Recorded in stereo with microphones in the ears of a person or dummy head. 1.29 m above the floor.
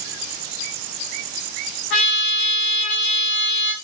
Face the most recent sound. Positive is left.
turn(degrees=65)  # may be behind; listen again after turning